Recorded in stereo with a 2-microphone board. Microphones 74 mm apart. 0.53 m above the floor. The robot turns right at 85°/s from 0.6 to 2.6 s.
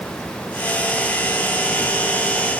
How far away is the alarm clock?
No alarm clock in this recording.